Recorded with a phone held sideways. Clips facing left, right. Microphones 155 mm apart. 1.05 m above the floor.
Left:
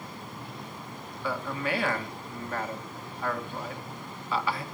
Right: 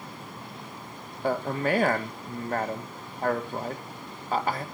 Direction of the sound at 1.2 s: 45° right (ahead or behind).